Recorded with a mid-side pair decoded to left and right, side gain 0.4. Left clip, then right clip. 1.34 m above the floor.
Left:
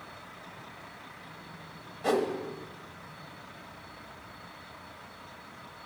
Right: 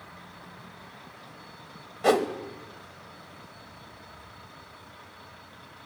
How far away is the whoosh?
About 0.9 m.